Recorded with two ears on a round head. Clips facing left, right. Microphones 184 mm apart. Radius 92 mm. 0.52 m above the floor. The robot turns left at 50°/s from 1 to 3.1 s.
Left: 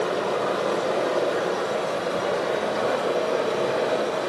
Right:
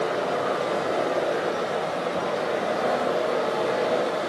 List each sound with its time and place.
0.0 s running water: 140° left, 1.3 m; by 4.3 s 35° left, 1.3 m